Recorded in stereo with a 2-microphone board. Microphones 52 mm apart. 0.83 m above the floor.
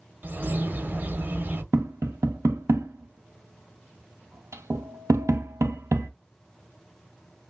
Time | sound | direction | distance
0.2 | a bird | 40° right (ahead or behind) | 0.6 m
1.7 | tapping | 65° right (ahead or behind) | 0.5 m